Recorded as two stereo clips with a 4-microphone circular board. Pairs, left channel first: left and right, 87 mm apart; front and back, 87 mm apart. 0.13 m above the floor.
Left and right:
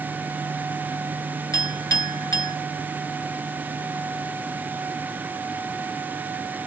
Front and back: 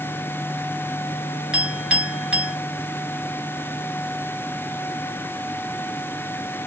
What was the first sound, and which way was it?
A clink, 110° left.